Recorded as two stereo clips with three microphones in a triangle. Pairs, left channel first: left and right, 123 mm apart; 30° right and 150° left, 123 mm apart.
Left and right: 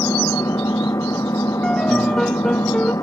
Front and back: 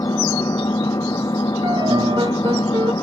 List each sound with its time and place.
0.0 s an engine running: 30° left
1.6 s a piano: 175° left